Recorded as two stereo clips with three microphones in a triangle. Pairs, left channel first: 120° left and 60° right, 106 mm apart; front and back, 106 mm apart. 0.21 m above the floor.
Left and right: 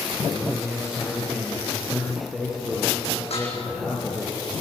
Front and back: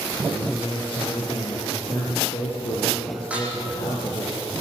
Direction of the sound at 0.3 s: 25° left.